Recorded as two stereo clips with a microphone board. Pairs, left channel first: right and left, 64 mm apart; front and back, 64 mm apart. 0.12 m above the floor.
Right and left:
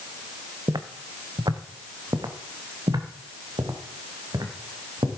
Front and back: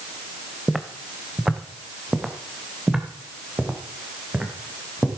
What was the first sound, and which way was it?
Footsteps, 95° left.